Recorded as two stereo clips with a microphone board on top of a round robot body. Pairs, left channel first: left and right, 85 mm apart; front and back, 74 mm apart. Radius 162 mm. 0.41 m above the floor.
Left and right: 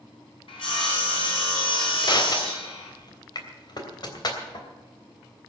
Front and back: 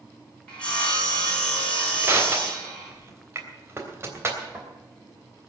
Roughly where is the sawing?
Left.